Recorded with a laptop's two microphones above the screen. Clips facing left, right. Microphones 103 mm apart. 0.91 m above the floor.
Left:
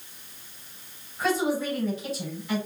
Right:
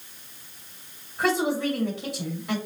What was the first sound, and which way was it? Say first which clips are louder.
A woman speaking: right 1 dB; 65° right (ahead or behind).